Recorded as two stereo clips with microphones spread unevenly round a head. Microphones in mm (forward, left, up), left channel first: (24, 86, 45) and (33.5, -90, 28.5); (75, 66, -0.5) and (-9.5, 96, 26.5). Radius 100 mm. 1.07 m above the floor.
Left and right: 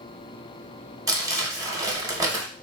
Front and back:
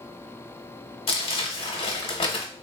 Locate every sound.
1.1 s crumpling: 15° right, 0.8 m